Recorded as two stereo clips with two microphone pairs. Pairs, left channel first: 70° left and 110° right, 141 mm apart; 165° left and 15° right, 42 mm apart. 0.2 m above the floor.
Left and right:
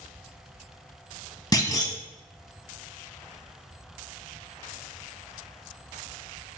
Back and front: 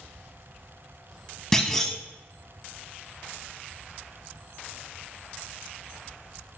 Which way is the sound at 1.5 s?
100° left.